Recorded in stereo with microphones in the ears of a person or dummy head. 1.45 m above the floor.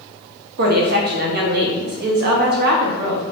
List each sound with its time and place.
0.6 s a woman speaking: 55° right (ahead or behind), 0.9 m